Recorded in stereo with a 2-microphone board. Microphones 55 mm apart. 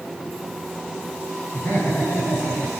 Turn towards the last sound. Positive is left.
turn(degrees=20)  # may be behind; listen again after turning